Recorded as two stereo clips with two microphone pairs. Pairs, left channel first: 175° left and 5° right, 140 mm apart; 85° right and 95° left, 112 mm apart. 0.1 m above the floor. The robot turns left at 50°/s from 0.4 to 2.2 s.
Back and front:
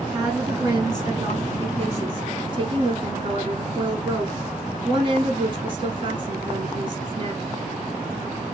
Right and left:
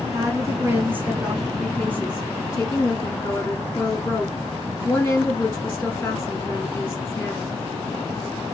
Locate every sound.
0.1 s a woman speaking: 70° left, 1.4 m; by 7.4 s 20° right, 1.4 m